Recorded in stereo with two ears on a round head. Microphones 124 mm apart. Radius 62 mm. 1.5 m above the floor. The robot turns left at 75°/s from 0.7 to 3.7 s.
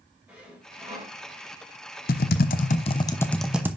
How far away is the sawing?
About 3.5 m.